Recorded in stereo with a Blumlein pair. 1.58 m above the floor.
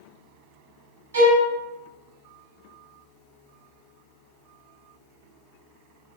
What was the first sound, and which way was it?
A violin, 65° right.